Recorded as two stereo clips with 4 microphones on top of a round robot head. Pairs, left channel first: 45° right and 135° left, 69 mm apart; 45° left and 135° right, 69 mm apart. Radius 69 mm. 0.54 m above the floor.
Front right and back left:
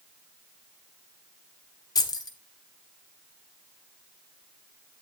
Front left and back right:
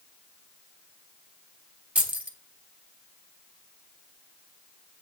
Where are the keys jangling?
65° right, 1.4 m.